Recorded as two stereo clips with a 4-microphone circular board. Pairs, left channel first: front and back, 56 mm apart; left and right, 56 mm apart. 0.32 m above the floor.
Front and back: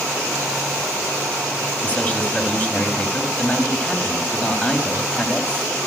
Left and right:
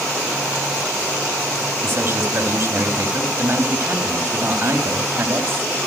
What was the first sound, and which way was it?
A man speaking, 65° right.